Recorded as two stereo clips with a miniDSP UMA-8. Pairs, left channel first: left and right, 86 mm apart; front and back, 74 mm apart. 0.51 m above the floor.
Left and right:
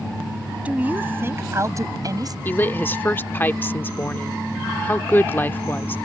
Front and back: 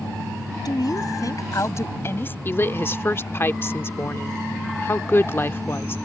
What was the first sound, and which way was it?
A woman speaking, 20° right.